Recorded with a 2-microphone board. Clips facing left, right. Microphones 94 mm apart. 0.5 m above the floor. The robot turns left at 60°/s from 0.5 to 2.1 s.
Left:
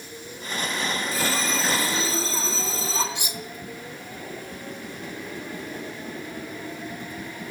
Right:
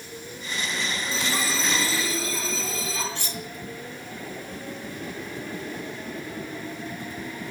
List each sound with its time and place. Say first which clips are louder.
1.1 s a bell: right 1 dB; 150° right, 4.5 m; by 3.0 s 150° left, 4.5 m
3.1 s cutlery clinking: even; 15° left (ahead or behind), 1.1 m